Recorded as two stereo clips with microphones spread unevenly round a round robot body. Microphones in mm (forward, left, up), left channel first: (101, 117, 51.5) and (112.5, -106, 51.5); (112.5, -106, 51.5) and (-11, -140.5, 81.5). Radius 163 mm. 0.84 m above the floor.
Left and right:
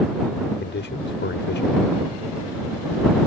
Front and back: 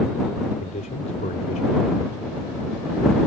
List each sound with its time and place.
0.6 s a man speaking: 55° left